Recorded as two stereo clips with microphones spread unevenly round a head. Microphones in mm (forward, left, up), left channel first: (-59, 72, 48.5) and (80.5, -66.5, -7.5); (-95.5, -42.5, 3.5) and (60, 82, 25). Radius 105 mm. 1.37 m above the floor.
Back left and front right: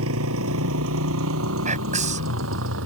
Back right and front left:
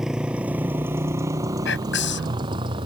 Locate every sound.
0.0 s a motorcycle: 50° right; by 2.9 s 30° right
1.6 s whispering: 100° right